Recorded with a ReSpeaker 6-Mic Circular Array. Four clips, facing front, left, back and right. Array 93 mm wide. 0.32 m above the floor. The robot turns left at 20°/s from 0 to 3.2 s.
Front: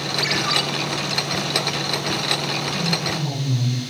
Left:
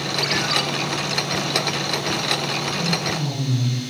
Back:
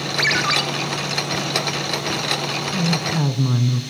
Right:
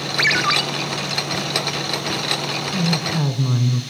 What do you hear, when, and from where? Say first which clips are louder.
0.2 s a ringtone: right 5 dB, back 3 dB; 120° right, 2.5 m; by 0.6 s 125° right, 2.5 m
2.7 s a woman speaking: right 2 dB, back 3 dB; 140° right, 3 m; by 3.8 s 145° right, 3 m